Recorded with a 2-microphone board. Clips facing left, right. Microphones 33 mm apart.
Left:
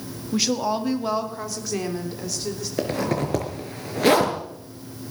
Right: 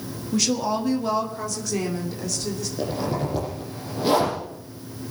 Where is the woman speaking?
15° left (ahead or behind), 1.6 m; by 2.7 s 10° left (ahead or behind), 3.5 m.